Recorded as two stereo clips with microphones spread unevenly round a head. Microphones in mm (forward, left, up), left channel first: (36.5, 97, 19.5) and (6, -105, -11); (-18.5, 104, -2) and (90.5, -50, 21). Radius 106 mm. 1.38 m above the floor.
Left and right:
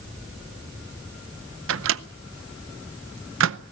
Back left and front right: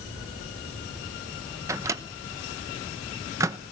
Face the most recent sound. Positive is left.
turn(degrees=-125)